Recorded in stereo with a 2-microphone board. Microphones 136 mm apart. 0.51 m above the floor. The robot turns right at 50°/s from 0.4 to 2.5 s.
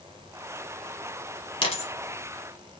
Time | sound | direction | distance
1.6 | a dropped coin | 40° left (ahead or behind) | 1.1 m